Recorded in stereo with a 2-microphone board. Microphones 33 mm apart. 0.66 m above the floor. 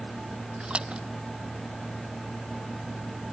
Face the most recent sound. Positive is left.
turn(degrees=-35)  # may be behind; listen again after turning